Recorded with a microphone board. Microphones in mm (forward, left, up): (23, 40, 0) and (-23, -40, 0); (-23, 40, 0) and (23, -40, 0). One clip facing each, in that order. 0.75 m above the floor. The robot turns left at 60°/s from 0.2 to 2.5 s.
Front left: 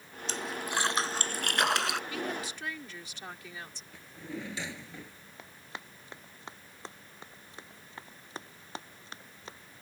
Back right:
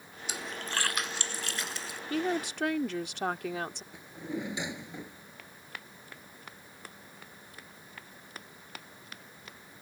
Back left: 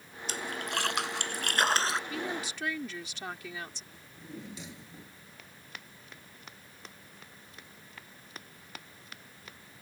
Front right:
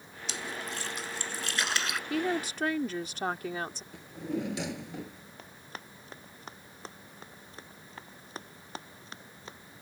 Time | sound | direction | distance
0.3 | a splash | 160° left | ?
2.1 | a woman speaking | 75° right | ?
3.9 | a drawer | 45° right | ?
5.4 | running footsteps | 5° right | ?